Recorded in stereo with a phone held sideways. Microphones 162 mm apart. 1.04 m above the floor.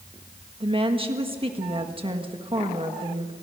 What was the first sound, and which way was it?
A woman speaking, 35° right (ahead or behind).